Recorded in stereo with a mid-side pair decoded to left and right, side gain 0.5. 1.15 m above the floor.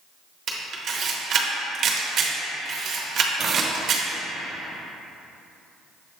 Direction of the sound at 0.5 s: 55° right.